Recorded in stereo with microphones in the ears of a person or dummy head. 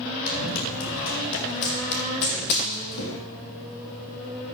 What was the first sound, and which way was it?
Running footsteps, 70° left (ahead or behind).